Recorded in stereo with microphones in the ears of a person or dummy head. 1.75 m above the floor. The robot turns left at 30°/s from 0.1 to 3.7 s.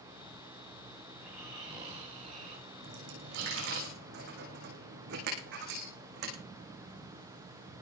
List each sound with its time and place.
1.1 s snoring: 10° right, 7 m; by 3.8 s 85° right, 7 m
2.8 s a dropped coin: 80° right, 8 m; by 6.3 s 60° right (ahead or behind), 8 m